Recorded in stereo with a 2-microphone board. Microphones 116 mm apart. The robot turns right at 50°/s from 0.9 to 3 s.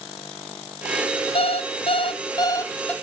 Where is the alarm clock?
90° left, 1.0 m; by 2.9 s 170° left, 1.0 m.